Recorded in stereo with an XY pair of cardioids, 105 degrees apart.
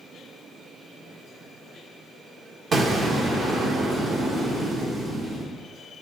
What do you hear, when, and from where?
2.7 s an explosion: 45° right, 1.0 m